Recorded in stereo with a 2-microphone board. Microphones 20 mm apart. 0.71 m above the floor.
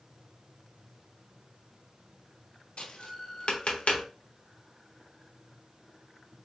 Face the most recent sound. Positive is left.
turn(degrees=80)